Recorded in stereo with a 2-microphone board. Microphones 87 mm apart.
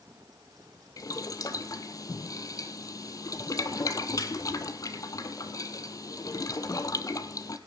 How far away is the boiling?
About 0.9 m.